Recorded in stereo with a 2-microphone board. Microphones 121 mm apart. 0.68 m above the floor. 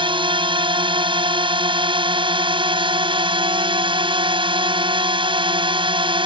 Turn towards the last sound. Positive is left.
turn(degrees=-45)  # may be behind; listen again after turning